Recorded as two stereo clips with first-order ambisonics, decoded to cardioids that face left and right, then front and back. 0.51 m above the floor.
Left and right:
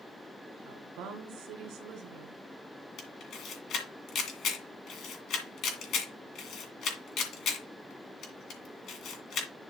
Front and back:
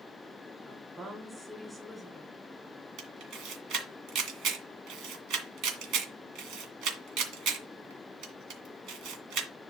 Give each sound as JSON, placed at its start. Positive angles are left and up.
{"t": 0.7, "sound": "a woman speaking", "azimuth_deg": -100, "distance_m": 2.0}
{"t": 3.0, "sound": "a camera shutter", "azimuth_deg": 140, "distance_m": 2.0}